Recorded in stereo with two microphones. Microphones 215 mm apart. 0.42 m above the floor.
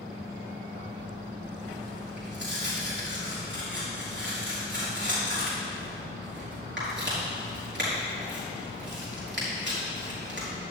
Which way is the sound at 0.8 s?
60° right (ahead or behind).